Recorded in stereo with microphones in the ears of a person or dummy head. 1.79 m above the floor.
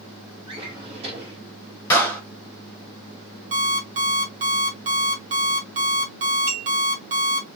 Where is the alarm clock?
35° right (ahead or behind), 2 m.